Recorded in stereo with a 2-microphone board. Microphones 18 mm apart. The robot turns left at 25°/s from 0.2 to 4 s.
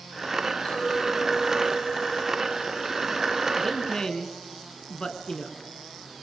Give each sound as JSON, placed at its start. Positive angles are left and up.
{"t": 0.7, "sound": "a clink", "azimuth_deg": 110, "distance_m": 9.0}
{"t": 3.6, "sound": "a man speaking", "side_deg": 25, "distance_m": 3.0}